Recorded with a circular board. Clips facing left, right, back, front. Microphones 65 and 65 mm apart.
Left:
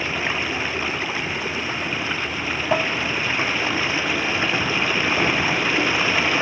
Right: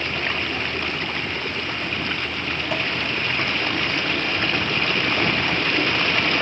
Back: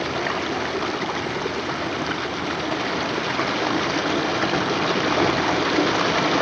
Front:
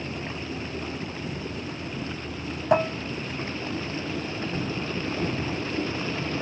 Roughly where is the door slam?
I don't hear a door slam.